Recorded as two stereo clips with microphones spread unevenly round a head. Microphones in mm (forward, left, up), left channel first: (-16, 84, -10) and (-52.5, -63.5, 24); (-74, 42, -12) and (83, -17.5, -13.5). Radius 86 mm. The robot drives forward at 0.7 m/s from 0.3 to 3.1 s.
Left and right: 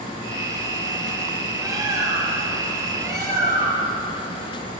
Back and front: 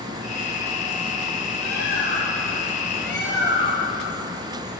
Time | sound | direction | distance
1.6 | a bird | 170° right | 7 m